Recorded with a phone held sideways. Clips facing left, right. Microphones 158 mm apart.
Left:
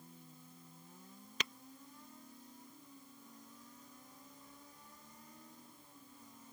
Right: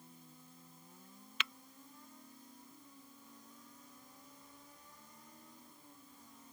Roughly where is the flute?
I don't hear a flute.